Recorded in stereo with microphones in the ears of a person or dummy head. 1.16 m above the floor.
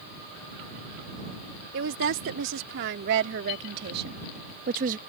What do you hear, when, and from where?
1.7 s a woman speaking: 70° right (ahead or behind); by 5.0 s 45° right (ahead or behind)